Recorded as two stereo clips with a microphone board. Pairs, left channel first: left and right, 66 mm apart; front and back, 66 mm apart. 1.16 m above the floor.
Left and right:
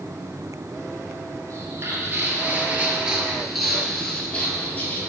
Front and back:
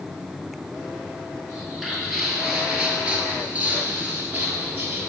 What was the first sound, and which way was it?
Footsteps, 85° right.